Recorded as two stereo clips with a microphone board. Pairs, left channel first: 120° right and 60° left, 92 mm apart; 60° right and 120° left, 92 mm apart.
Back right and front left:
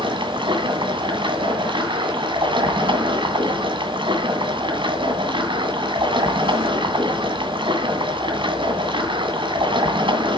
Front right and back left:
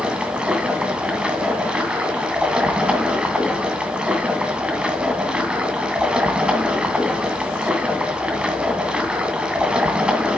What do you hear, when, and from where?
0.0 s running water: 40° left, 2.5 m